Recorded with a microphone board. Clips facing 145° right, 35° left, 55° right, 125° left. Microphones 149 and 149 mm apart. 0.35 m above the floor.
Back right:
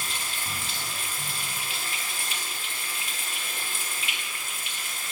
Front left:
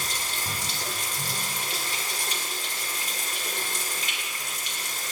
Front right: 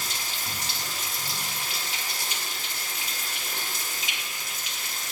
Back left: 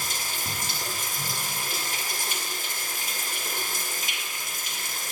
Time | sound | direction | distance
0.0 | running water | 85° left | 1.9 m